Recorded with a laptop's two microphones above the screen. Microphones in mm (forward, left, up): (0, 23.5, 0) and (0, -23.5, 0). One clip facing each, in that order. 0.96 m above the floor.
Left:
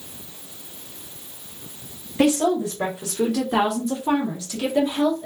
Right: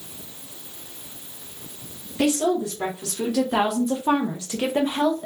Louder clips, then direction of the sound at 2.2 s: Left 2 dB; 30° left (ahead or behind).